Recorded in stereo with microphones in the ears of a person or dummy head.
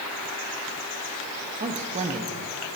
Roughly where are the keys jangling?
No keys jangling in this recording.